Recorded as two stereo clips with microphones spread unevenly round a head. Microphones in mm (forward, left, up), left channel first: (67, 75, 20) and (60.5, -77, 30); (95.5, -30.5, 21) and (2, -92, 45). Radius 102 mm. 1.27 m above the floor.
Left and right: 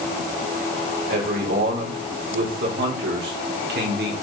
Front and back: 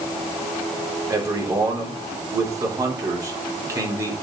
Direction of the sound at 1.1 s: 85° right.